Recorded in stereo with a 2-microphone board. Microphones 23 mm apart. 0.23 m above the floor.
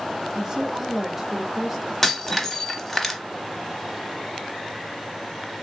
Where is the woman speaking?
30° right (ahead or behind), 1.2 m; by 1.9 s centre (ahead or behind), 1.4 m.